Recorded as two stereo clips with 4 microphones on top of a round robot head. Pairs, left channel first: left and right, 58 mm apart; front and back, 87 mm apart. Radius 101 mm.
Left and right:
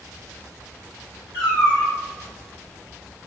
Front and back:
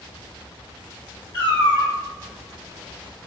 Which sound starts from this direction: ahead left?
A cat meowing, at 1.3 s.